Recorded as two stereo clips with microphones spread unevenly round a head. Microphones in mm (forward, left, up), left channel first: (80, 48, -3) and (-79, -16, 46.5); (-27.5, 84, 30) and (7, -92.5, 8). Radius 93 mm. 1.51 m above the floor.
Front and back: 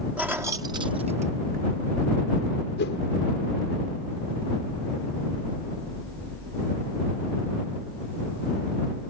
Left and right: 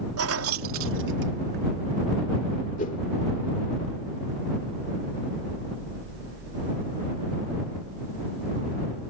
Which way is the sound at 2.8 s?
55° left.